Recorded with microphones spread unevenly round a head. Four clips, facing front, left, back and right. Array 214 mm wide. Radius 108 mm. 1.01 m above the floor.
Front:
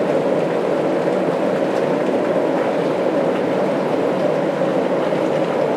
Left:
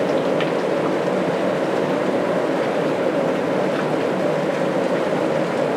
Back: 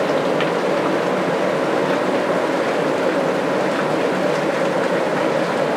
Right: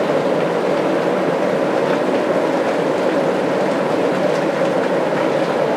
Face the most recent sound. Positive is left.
No sound to turn to.